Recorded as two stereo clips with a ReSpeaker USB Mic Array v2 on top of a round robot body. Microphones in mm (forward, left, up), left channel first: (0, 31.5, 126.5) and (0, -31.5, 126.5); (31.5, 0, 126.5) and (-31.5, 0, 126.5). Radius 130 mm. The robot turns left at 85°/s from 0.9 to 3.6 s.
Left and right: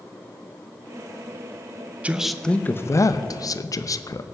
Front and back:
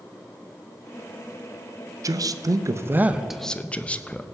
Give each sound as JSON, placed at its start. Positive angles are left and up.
{"t": 2.0, "sound": "a man speaking", "azimuth_deg": -160, "distance_m": 0.7}